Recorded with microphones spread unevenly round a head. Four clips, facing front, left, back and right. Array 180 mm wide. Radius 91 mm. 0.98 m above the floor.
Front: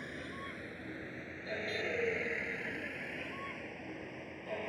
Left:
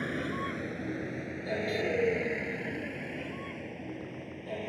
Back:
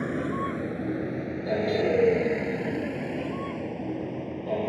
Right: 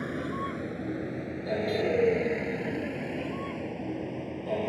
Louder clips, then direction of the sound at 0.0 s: Right 1 dB, back 16 dB; 175° right.